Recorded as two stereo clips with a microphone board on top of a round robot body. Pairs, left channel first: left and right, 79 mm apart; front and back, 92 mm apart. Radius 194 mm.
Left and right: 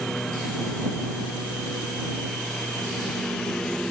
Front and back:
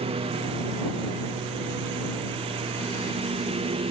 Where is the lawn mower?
175° left.